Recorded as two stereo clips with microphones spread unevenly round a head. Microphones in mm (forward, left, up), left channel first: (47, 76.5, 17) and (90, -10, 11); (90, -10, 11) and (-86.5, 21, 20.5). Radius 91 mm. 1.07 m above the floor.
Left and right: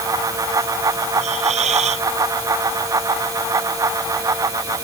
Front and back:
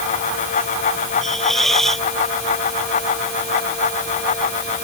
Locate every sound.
1.2 s a hiss: 100° right